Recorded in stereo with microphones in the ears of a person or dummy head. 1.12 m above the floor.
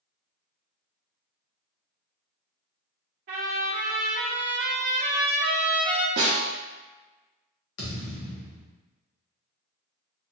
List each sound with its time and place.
3.3 s a trumpet: 30° right (ahead or behind), 0.7 m
6.2 s a snare drum: 55° right (ahead or behind), 1.0 m
7.8 s a thud: 65° left (ahead or behind), 1.4 m